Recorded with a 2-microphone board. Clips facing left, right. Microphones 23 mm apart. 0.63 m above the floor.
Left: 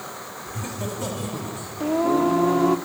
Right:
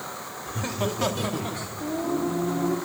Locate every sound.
0.5 s laughter: 15° right (ahead or behind), 1.1 m; by 1.7 s 50° right (ahead or behind), 1.5 m
1.8 s singing: 60° left (ahead or behind), 0.6 m